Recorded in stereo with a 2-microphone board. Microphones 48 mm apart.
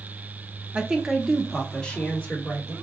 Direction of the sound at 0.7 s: 20° right (ahead or behind).